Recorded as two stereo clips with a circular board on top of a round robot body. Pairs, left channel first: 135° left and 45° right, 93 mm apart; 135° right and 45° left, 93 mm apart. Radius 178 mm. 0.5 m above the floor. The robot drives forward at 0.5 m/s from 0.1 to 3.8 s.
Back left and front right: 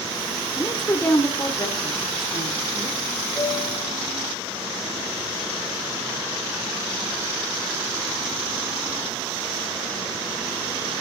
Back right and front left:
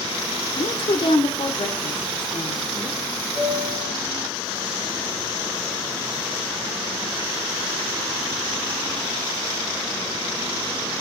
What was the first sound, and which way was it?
A woman speaking, 160° right.